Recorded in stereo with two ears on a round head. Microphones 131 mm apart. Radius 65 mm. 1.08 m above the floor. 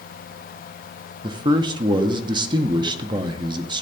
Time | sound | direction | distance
1.2 | a man speaking | 30° right (ahead or behind) | 0.8 m